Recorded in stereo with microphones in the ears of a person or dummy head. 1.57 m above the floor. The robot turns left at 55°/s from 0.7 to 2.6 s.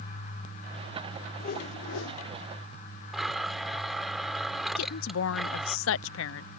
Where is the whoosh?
140° left; by 2.2 s 90° left.